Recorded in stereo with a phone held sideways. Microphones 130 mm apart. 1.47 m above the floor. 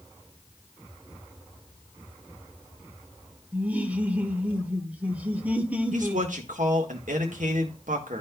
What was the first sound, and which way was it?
Laughter, 10° right (ahead or behind).